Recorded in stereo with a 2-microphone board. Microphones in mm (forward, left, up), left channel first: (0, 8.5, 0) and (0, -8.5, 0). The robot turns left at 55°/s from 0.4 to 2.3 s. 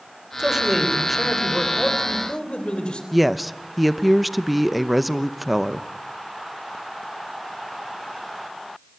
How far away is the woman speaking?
About 0.7 m.